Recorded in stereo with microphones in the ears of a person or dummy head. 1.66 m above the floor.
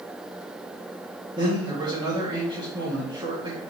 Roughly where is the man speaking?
Right.